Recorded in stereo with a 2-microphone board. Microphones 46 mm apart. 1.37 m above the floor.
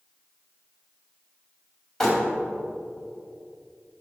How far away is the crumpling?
About 2.5 m.